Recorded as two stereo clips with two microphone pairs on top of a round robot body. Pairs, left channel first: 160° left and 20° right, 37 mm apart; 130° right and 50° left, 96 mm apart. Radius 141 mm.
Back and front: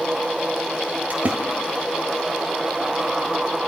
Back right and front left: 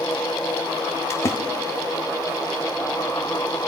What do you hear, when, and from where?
1.1 s a splash: 70° right, 1.2 m